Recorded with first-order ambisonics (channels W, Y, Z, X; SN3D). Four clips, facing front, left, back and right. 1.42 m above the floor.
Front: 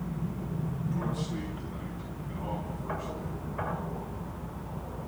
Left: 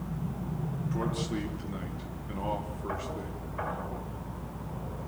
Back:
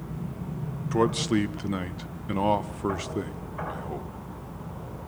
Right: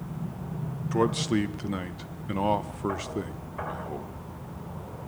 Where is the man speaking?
150° right, 1.2 m.